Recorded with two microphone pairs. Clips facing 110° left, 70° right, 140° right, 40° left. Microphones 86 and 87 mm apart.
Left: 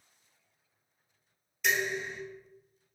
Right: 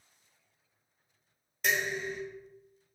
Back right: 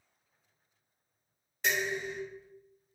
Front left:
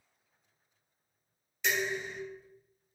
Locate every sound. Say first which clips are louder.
1.6 s dishes clattering: even, even; 105° right, 1.3 m